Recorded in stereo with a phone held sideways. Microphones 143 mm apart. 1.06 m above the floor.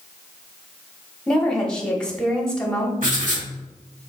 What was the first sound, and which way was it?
A woman speaking, 5° left (ahead or behind).